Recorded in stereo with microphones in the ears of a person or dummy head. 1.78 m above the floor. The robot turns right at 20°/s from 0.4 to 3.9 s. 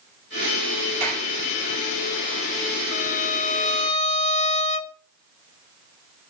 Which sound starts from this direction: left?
A violin, at 2.9 s.